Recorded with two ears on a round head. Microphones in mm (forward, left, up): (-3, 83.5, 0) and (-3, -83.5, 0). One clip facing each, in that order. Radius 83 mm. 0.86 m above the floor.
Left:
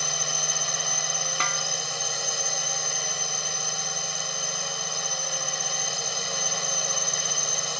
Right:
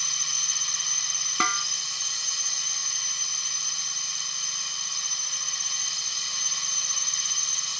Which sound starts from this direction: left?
A drone, at 0.0 s.